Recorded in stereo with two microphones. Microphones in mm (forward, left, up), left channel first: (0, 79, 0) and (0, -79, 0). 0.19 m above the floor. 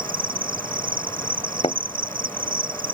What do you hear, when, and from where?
0.0 s an insect: 60° right (ahead or behind)
1.6 s a thud: 35° left (ahead or behind)